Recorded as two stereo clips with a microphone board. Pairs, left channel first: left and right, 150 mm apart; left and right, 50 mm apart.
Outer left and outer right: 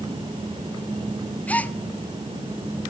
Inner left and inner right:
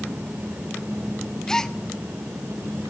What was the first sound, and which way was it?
A gasp, 10° left (ahead or behind).